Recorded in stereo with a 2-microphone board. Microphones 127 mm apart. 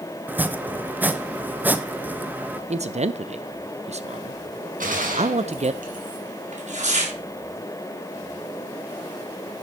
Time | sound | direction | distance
0.3 | chopping | 15° right (ahead or behind) | 0.6 m
2.7 | a man speaking | 55° right (ahead or behind) | 0.6 m
4.8 | a gunshot | 80° right | 2.5 m
6.5 | tearing paper | 60° right (ahead or behind) | 3.5 m